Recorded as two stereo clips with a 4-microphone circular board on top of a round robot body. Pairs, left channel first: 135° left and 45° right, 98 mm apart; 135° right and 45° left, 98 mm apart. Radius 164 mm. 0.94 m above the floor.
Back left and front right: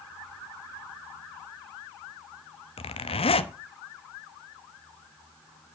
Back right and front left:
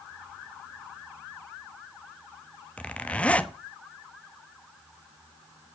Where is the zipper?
150° left, 1.0 m.